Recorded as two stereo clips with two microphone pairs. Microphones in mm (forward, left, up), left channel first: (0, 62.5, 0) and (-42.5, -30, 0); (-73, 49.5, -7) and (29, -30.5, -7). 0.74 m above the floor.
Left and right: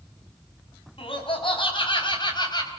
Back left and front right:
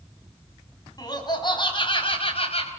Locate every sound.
1.0 s laughter: 85° left, 5.5 m; by 2.7 s 110° left, 4.5 m